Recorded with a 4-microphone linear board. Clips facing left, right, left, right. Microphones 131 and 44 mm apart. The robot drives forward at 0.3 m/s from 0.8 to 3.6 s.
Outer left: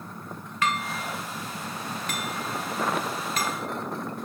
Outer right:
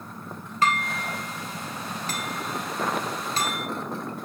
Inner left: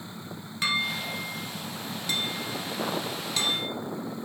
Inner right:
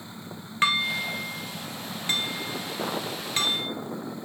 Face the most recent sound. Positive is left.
turn(degrees=-30)  # may be behind; listen again after turning